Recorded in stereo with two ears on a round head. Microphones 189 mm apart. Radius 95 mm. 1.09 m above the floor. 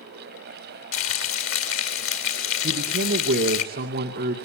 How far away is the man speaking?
About 2 m.